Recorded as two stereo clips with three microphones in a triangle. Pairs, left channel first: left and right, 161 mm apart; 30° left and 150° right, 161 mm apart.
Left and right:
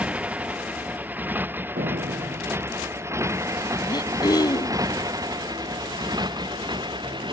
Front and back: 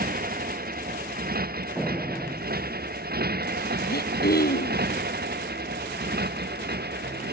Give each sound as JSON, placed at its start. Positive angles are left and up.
{"t": 0.0, "sound": "a motorcycle", "azimuth_deg": -170}
{"t": 1.8, "sound": "a door slam", "azimuth_deg": -70}
{"t": 3.9, "sound": "throat clearing", "azimuth_deg": 25}